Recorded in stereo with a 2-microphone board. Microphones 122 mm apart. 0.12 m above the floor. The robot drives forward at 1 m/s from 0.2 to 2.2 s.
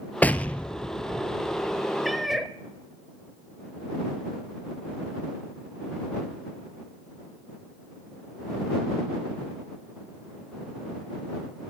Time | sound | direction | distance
0.2 | an explosion | 15° left (ahead or behind) | 0.9 m
2.0 | a cat meowing | centre (ahead or behind) | 0.6 m